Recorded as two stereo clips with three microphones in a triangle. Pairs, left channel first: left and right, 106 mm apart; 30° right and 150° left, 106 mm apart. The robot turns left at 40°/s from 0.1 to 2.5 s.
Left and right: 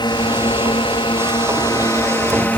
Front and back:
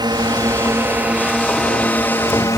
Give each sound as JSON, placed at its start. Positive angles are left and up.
{"t": 0.0, "sound": "a drone", "azimuth_deg": 115}